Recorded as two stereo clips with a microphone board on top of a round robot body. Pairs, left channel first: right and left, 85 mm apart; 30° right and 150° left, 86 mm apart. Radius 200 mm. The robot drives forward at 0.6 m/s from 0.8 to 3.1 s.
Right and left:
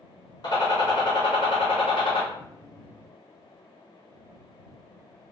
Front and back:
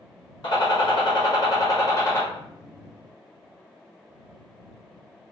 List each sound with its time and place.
0.4 s a gunshot: 60° right, 1.4 m; by 2.2 s 95° right, 1.2 m